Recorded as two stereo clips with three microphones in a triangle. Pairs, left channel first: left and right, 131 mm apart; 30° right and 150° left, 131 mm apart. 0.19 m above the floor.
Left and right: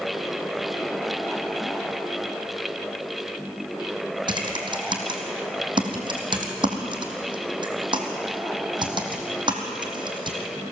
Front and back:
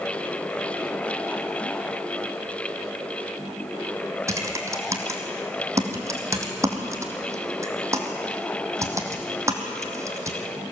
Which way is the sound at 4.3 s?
145° right.